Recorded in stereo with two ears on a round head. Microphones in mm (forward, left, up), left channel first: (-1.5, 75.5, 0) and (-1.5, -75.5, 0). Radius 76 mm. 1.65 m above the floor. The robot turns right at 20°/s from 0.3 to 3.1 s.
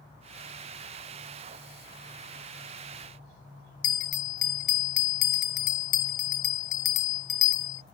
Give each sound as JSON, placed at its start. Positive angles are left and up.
{"t": 3.8, "sound": "a bell", "side_deg": 50}